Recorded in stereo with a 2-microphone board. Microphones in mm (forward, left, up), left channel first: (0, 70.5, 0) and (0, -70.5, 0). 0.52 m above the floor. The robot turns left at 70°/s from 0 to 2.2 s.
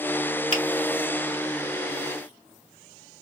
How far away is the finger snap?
About 1.6 m.